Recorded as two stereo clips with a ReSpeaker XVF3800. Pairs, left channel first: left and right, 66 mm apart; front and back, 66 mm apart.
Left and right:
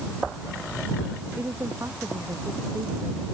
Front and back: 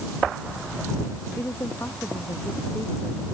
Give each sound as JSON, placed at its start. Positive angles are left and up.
{"t": 1.4, "sound": "a woman speaking", "azimuth_deg": -45}